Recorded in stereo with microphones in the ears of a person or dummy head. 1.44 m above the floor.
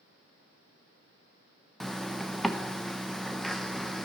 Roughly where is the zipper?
Centre.